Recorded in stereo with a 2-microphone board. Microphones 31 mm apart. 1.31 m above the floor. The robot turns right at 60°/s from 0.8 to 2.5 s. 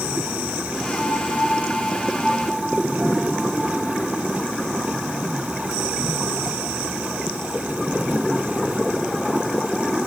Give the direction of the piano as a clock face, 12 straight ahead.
8 o'clock.